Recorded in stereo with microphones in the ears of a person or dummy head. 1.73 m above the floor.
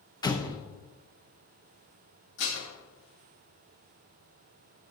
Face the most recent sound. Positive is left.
turn(degrees=60)  # may be behind; listen again after turning